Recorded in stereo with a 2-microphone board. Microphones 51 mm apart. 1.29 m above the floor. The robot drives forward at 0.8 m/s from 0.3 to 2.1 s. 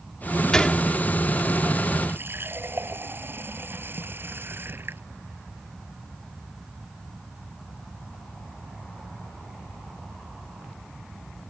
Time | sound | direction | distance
0.5 | a gunshot | 15° left (ahead or behind) | ?
2.1 | a running tap | 45° right (ahead or behind) | ?